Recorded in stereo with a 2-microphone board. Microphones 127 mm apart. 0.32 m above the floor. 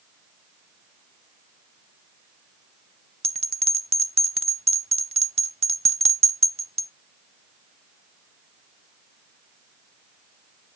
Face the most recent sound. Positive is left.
turn(degrees=-55)  # may be behind; listen again after turning